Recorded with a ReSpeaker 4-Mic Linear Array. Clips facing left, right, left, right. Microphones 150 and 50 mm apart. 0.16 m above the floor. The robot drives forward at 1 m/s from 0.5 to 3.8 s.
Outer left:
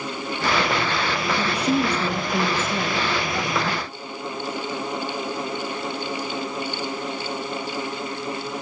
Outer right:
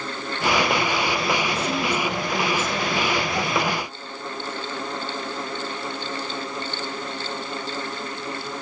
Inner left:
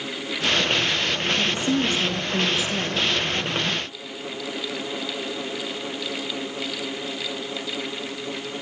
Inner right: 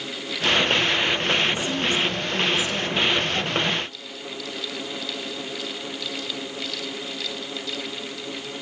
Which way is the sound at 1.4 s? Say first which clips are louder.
Outer left 3 dB, inner left 1 dB; 35° left (ahead or behind).